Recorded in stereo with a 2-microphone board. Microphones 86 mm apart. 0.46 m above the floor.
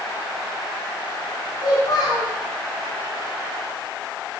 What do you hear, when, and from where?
1.6 s a child speaking: 55° left (ahead or behind), 5 m